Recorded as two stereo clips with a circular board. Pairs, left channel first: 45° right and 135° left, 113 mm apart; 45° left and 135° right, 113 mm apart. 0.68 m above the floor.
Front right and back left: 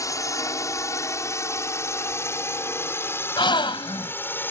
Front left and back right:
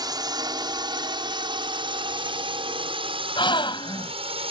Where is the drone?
95° right; by 4.5 s 115° right.